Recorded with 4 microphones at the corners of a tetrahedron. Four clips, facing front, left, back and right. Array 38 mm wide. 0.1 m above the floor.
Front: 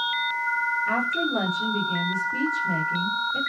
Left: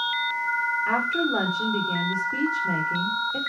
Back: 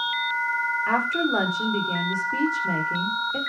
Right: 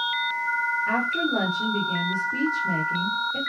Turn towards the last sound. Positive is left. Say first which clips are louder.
# even, back 2 dB
turn(degrees=165)